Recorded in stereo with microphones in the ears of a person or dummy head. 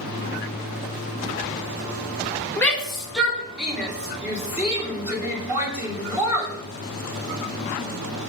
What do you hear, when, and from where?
2.6 s a shout: 10° left (ahead or behind), 1.6 m; by 6.5 s 15° right (ahead or behind), 4 m